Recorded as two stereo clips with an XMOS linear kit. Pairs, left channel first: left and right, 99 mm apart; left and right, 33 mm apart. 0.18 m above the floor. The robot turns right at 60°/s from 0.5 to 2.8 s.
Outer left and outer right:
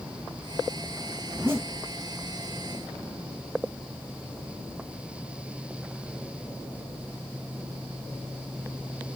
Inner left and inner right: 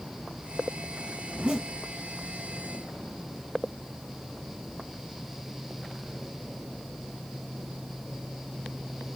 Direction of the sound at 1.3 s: 20° right (ahead or behind).